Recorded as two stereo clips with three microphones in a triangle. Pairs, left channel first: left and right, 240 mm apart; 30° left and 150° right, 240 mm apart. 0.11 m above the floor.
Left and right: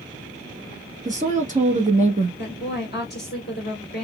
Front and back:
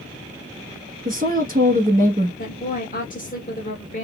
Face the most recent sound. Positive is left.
turn(degrees=70)